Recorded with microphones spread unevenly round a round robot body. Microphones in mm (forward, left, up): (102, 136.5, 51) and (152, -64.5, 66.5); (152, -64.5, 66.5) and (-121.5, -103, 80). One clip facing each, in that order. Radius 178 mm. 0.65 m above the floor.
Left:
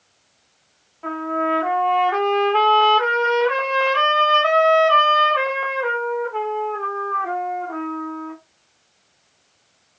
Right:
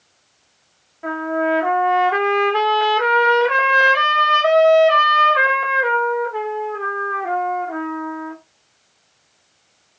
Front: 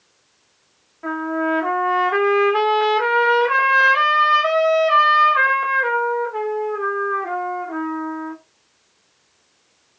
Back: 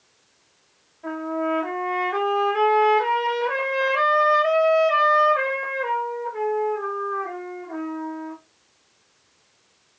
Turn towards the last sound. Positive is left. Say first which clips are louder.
# right 3 dB, front 4 dB
turn(degrees=0)